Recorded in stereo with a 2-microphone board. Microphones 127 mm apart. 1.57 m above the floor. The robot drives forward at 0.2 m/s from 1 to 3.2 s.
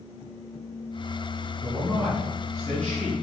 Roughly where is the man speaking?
Centre.